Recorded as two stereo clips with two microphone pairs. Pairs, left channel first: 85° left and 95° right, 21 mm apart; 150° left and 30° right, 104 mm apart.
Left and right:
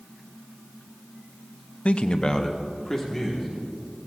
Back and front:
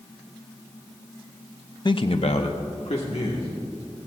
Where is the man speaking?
100° left, 0.5 m; by 4.1 s 170° left, 2.5 m.